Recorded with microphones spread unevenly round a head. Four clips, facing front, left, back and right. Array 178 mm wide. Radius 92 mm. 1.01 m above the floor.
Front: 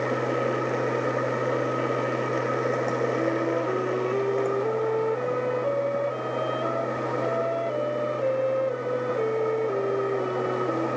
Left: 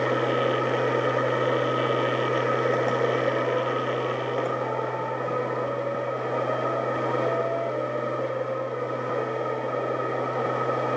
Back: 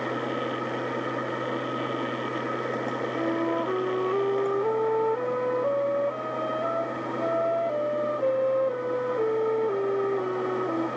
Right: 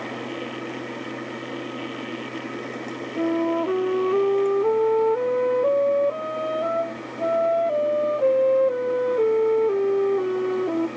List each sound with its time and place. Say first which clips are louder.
0.0 s a machine running: left 8 dB, front 4 dB; 55° left
3.2 s a flute: right 2 dB, front 1 dB; 105° right